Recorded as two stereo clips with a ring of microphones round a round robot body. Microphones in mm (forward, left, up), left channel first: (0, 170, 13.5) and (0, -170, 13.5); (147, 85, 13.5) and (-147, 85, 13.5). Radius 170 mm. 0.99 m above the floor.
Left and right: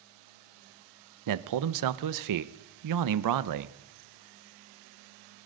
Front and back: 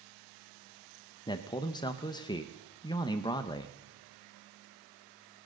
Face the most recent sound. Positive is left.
turn(degrees=-75)